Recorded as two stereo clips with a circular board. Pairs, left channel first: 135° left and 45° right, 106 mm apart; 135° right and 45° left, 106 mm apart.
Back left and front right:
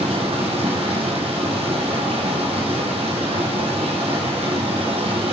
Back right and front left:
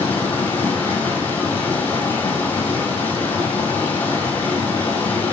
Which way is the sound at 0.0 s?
60° right.